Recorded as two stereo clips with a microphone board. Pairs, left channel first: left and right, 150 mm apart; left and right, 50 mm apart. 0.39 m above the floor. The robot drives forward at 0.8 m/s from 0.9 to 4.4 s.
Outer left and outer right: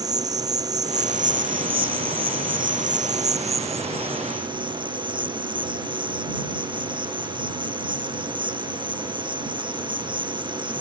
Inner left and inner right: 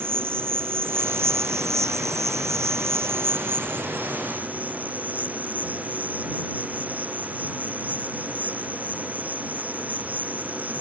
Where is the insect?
50° right (ahead or behind); by 10.8 s 35° right (ahead or behind).